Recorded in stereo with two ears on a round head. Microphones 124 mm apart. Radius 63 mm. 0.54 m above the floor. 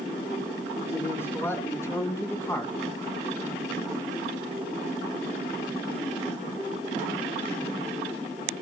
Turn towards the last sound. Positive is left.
turn(degrees=20)  # may be behind; listen again after turning